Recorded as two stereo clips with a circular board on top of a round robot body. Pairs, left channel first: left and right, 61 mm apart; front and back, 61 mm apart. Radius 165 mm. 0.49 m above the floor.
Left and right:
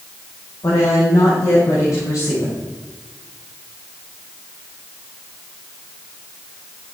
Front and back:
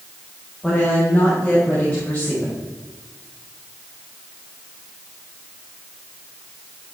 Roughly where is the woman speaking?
Left.